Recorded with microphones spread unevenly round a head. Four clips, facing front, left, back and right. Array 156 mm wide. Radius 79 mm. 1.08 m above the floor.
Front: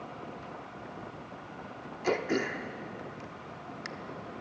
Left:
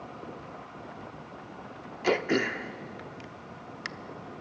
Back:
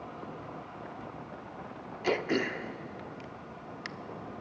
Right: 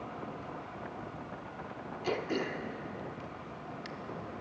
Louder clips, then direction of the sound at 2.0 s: Left 7 dB, even; 80° left.